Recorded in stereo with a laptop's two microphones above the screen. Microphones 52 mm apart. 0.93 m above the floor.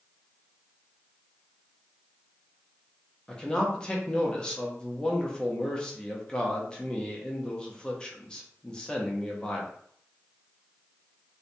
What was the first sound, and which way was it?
A man speaking, 15° left (ahead or behind).